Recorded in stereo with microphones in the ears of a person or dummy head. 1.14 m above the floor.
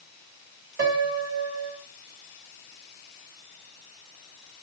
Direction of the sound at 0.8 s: 50° right (ahead or behind).